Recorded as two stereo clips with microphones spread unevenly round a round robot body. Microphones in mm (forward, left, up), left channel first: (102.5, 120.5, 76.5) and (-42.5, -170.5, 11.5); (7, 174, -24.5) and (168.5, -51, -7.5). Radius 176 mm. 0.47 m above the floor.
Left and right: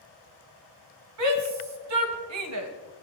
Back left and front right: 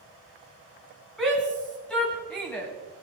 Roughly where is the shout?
Behind right.